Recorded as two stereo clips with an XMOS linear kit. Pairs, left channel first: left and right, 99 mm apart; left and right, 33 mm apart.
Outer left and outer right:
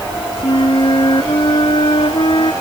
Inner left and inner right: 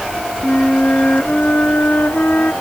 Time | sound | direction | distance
0.4 | a flute | 55° left (ahead or behind) | ?